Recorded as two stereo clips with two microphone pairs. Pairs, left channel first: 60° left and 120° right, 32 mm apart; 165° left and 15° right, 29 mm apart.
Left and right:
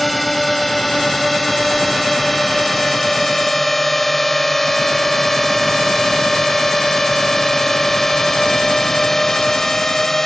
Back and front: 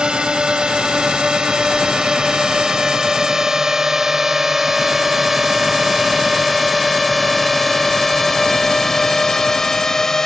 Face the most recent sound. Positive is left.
turn(degrees=120)